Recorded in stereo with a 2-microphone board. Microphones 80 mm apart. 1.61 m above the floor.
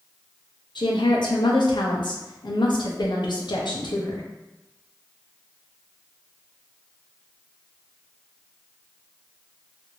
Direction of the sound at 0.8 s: 75° left (ahead or behind).